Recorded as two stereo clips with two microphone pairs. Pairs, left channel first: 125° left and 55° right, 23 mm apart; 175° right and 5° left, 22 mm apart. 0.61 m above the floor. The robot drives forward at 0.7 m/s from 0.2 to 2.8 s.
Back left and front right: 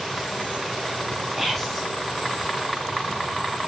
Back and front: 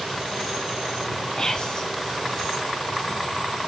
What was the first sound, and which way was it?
Whispering, 135° right.